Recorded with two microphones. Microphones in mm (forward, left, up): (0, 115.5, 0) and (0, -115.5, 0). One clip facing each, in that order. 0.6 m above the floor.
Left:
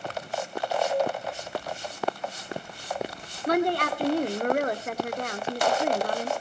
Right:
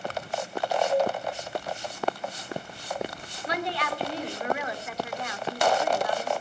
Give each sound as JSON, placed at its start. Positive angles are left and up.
{"t": 0.9, "sound": "a cowbell", "side_deg": -30, "distance_m": 9.5}
{"t": 3.5, "sound": "a woman speaking", "side_deg": 50, "distance_m": 1.8}